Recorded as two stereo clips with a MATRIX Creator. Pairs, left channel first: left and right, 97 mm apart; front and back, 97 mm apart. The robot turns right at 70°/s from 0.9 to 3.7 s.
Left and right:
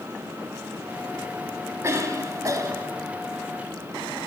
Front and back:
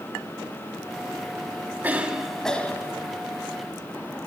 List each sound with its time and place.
1.8 s a cough: 125° right, 1.3 m; by 2.9 s 45° right, 1.3 m